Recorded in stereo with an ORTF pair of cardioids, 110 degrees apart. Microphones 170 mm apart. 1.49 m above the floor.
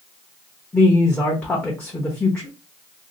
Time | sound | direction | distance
0.7 | a woman speaking | 5° left | 0.8 m